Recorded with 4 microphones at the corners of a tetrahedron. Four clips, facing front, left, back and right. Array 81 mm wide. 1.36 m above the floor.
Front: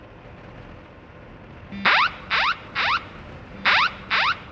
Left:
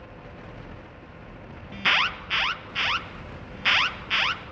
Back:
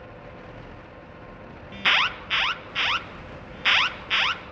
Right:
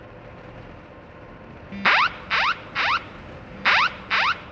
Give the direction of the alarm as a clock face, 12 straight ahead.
2 o'clock.